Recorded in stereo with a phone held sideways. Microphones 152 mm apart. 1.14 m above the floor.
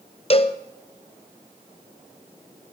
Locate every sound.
0.3 s a cowbell: 40° left (ahead or behind), 0.7 m